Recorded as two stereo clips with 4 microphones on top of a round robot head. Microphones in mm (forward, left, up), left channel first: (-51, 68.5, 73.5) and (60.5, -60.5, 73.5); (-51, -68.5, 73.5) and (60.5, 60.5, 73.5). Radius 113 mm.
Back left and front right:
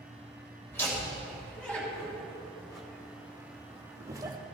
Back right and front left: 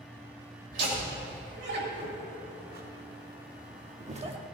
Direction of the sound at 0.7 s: 50° left.